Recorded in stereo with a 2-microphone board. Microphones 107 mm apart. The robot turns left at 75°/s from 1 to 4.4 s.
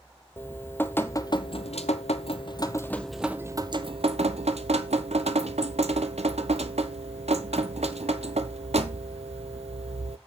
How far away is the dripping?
About 0.8 m.